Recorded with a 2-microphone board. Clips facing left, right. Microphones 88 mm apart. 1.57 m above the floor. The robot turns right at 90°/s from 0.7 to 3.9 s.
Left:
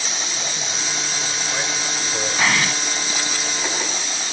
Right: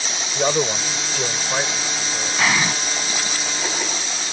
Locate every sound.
0.3 s a man speaking: 110° right; by 2.5 s 55° left
2.4 s an explosion: 175° left; by 2.7 s 155° right